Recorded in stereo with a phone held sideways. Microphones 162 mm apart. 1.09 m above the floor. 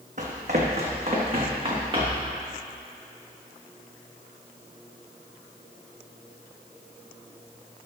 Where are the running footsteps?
50° right (ahead or behind), 2.5 m; by 2.3 s 30° right (ahead or behind), 4 m.